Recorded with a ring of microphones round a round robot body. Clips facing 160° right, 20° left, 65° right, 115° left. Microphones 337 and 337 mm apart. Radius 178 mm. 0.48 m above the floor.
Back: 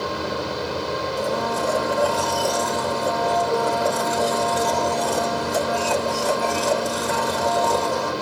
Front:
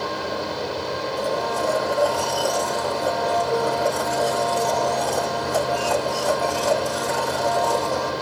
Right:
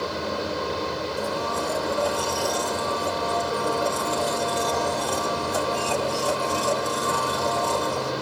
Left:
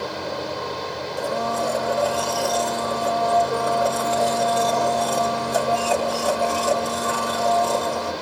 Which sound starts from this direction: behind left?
A blender, at 1.2 s.